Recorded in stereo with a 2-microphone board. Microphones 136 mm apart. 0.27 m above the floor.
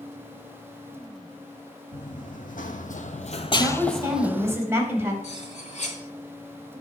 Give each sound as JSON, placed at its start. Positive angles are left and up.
{"t": 1.9, "sound": "running footsteps", "side_deg": 75, "distance_m": 1.3}
{"t": 3.6, "sound": "a woman speaking", "side_deg": -20, "distance_m": 1.6}
{"t": 5.2, "sound": "cutlery clinking", "side_deg": 60, "distance_m": 1.8}